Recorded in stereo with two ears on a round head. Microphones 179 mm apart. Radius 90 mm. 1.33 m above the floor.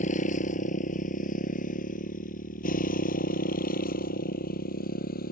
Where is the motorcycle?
40° left (ahead or behind); by 5.3 s 50° left (ahead or behind).